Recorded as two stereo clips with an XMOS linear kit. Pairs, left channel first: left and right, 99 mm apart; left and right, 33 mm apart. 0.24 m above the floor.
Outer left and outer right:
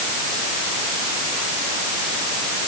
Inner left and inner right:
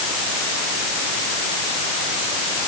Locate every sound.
Only background noise.